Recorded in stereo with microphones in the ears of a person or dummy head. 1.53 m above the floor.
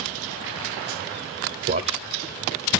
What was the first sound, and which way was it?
A man speaking, 45° right (ahead or behind).